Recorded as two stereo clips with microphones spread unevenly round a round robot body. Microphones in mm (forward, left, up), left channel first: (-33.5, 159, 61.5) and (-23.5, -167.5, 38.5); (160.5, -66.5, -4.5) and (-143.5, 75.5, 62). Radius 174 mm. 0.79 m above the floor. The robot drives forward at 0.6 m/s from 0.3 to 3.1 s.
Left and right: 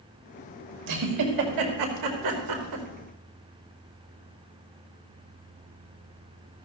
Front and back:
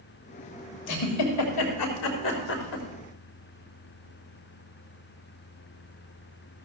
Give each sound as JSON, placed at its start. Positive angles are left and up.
{"t": 0.9, "sound": "a giggle", "azimuth_deg": -60, "distance_m": 3.0}